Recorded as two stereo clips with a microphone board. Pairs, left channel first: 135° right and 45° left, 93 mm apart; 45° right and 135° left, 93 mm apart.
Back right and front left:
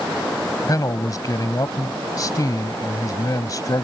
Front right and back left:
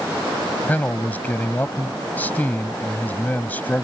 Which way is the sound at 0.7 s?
110° right.